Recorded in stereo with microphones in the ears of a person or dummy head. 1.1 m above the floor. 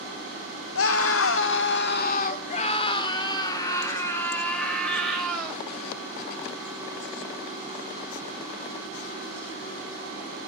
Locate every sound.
0.8 s a scream: 60° left (ahead or behind), 1.3 m; by 5.6 s 5° right (ahead or behind), 2.5 m